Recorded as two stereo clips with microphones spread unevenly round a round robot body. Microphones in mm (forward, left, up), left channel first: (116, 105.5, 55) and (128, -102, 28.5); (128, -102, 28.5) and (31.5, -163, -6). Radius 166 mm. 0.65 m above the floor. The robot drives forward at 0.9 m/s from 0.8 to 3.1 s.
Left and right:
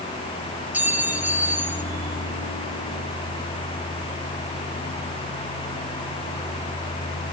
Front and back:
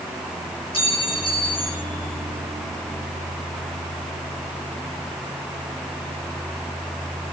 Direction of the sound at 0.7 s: 5° right.